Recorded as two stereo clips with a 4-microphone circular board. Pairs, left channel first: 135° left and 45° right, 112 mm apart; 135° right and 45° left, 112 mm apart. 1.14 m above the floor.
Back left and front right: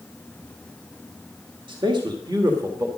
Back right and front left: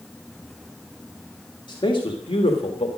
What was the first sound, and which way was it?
A man speaking, 85° right.